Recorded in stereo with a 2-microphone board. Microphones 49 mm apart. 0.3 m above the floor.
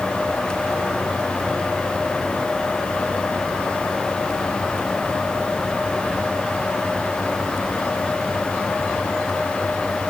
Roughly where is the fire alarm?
I don't hear a fire alarm.